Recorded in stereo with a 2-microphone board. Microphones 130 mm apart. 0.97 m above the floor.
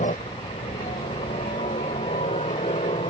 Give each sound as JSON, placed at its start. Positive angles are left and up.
{"t": 0.0, "sound": "a helicopter", "side_deg": 75}